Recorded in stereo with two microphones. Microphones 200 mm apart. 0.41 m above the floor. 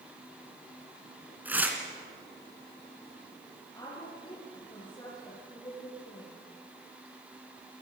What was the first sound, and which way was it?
Tearing paper, 10° right (ahead or behind).